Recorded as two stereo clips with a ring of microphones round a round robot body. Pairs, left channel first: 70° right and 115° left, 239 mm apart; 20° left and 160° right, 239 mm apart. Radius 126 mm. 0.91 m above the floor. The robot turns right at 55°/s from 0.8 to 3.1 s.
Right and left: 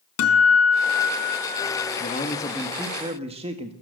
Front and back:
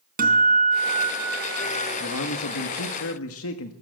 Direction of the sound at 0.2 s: 100° right.